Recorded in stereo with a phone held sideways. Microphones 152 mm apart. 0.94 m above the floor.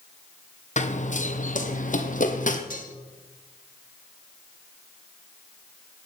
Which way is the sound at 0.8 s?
50° left (ahead or behind).